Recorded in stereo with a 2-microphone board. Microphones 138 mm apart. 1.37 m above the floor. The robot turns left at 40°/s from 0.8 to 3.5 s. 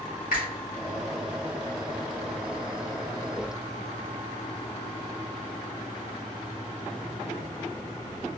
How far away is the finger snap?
About 1.6 m.